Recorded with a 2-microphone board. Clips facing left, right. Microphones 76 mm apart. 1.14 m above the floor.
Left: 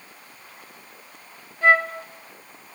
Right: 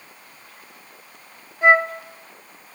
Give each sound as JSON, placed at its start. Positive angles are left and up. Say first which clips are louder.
{"t": 1.6, "sound": "a flute", "louder": "right 2 dB", "side_deg": -20, "distance_m": 1.4}